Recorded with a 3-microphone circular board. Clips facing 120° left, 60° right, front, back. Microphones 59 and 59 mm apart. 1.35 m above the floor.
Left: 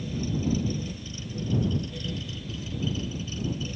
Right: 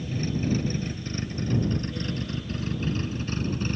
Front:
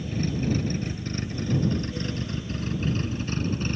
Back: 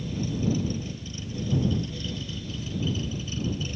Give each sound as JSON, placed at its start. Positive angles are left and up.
{"t": 0.0, "sound": "a vehicle", "azimuth_deg": -25}